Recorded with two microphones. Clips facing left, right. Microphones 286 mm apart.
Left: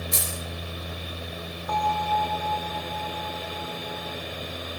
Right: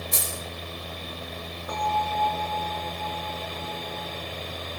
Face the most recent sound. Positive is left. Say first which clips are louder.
# left 2 dB
turn(degrees=-30)  # may be behind; listen again after turning